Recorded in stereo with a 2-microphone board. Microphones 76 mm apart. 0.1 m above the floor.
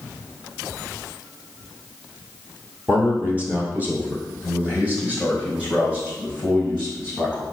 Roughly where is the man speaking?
Right.